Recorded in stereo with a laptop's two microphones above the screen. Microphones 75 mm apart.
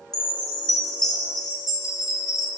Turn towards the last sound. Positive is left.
turn(degrees=60)  # may be behind; listen again after turning